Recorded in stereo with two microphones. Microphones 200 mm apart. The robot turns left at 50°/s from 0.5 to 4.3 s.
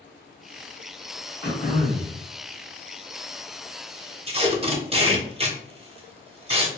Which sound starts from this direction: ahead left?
Throat clearing, at 1.4 s.